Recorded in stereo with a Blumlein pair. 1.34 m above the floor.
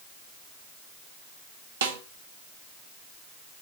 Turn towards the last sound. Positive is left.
turn(degrees=-60)